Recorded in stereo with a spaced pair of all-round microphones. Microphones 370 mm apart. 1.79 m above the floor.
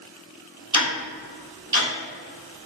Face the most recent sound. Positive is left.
turn(degrees=-75)  # may be behind; listen again after turning